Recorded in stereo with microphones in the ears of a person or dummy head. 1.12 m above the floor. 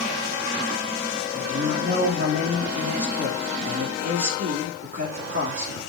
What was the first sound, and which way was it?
A man speaking, 55° right (ahead or behind).